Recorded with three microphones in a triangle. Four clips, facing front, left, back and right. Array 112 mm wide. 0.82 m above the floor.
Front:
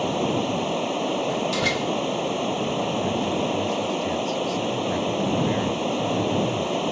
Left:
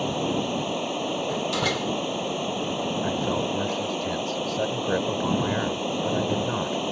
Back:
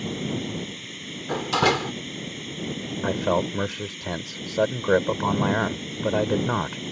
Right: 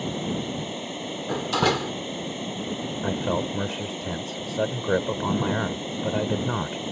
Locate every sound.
0.0 s running water: 25° left
1.3 s a door slam: 150° right
3.0 s a man speaking: 170° right